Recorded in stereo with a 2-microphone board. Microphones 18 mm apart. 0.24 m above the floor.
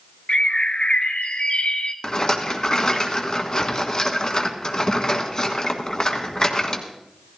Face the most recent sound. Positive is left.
turn(degrees=40)  # may be behind; listen again after turning